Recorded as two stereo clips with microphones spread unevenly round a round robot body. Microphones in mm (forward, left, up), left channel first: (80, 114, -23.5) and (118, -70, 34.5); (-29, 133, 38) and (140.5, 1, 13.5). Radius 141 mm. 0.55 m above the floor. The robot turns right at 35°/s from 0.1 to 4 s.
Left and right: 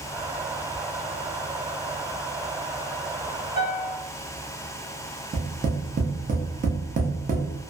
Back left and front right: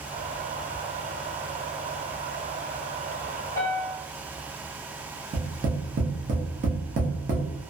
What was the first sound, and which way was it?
A piano, 65° left.